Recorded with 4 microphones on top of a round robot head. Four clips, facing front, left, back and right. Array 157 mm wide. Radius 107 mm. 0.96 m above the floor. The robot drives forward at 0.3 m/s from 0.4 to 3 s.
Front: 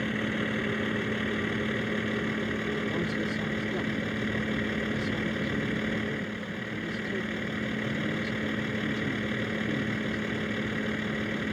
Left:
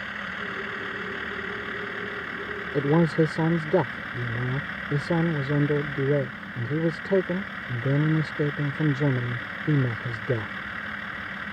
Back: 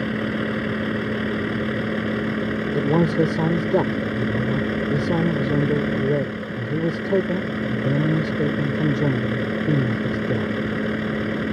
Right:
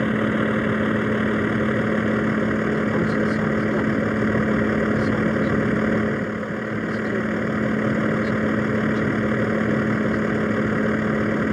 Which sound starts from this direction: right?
A vehicle, at 0.0 s.